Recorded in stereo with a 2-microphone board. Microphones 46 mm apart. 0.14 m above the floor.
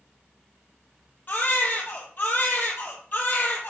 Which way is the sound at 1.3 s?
40° left (ahead or behind).